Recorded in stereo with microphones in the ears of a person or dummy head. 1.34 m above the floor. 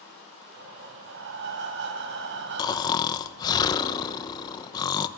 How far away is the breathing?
About 4 m.